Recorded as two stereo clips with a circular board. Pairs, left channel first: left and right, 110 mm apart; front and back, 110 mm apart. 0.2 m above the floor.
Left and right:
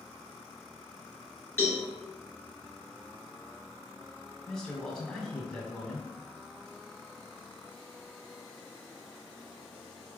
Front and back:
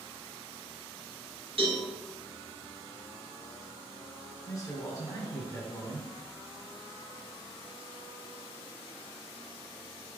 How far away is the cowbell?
About 2 m.